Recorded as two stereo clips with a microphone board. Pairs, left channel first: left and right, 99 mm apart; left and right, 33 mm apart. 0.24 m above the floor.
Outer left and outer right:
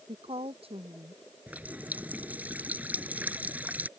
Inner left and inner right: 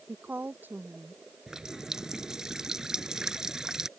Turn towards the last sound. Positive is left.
turn(degrees=-15)  # may be behind; listen again after turning